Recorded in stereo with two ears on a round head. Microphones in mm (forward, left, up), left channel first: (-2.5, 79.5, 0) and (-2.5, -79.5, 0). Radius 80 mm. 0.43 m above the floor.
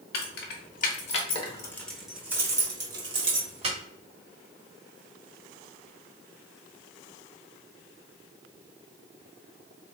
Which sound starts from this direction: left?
Keys jangling, at 0.1 s.